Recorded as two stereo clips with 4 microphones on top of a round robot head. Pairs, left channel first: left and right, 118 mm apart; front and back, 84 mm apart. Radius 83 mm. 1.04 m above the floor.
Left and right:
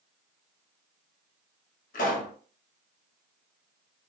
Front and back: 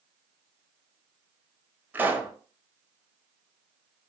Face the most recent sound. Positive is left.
turn(degrees=110)